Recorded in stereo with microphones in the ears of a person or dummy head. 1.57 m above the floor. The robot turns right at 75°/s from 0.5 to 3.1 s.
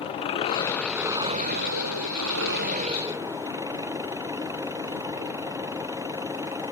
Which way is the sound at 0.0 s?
150° left.